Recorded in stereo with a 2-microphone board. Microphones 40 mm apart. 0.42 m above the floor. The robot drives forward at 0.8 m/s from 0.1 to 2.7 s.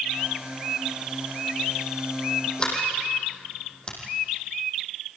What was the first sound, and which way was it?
A sliding door, 25° left (ahead or behind).